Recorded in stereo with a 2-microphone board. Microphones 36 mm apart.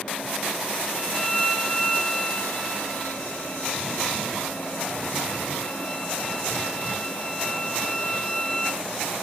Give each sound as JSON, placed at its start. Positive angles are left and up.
{"t": 0.9, "sound": "a violin", "side_deg": 25, "distance_m": 3.5}